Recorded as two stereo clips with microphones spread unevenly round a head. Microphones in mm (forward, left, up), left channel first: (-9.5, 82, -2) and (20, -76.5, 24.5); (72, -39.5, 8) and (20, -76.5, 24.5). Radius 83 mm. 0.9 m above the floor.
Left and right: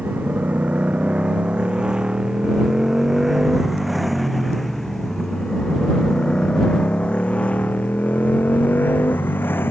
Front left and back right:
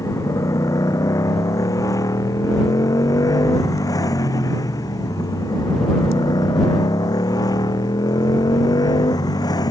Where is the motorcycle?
Straight ahead; by 9.7 s 25° left.